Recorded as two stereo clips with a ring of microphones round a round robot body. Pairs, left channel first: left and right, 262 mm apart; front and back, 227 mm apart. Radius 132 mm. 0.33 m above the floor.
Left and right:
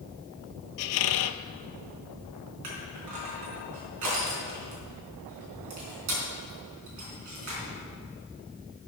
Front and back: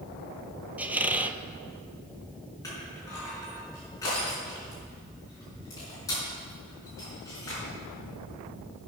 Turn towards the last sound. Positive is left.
turn(degrees=-75)